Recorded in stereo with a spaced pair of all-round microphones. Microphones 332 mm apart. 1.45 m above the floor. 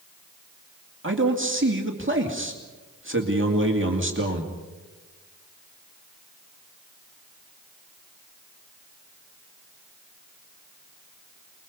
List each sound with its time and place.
1.0 s a man speaking: 35° right (ahead or behind), 2.5 m